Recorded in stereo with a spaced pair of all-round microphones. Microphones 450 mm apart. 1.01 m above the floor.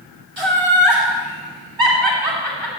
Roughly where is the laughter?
Right.